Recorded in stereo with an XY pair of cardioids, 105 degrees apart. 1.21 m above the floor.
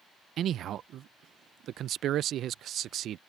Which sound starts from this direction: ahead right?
A man speaking, at 0.4 s.